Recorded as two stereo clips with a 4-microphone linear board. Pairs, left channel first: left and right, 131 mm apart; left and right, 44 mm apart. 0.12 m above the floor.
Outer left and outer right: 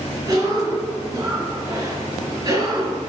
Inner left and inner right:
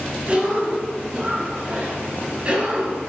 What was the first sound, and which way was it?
A cough, 25° right (ahead or behind).